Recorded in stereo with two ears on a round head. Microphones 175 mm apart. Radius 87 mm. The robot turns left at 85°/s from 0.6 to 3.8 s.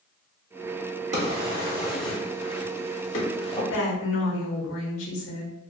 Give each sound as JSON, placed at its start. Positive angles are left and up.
{"t": 1.1, "sound": "a drawer", "side_deg": -35, "distance_m": 0.7}
{"t": 3.7, "sound": "a woman speaking", "side_deg": 65, "distance_m": 0.8}